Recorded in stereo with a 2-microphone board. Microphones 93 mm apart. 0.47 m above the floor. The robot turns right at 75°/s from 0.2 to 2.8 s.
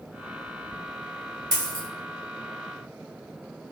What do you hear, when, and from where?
1.5 s a dropped coin: 45° right (ahead or behind), 0.9 m; by 1.9 s 70° right (ahead or behind), 0.9 m